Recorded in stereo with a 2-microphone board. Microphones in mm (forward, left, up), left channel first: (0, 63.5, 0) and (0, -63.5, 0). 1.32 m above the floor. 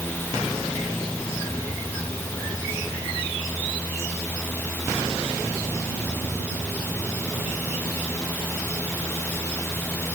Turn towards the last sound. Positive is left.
No sound to turn to.